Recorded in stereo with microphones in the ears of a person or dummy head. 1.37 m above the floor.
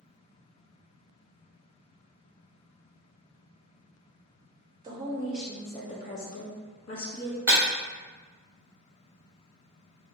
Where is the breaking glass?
25° right (ahead or behind), 1.2 m.